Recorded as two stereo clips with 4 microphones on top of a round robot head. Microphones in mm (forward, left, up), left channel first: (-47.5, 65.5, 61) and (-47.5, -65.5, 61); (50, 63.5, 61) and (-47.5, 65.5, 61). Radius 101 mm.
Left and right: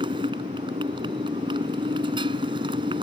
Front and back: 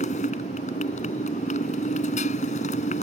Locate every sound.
0.0 s a motorcycle: 25° right